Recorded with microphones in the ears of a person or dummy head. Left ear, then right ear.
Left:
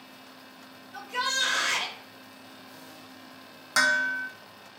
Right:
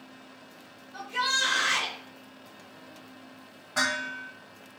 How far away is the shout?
About 0.7 m.